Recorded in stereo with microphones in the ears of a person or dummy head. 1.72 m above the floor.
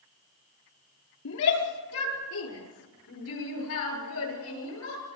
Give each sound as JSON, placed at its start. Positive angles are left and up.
{"t": 1.2, "sound": "a shout", "side_deg": 85, "distance_m": 5.0}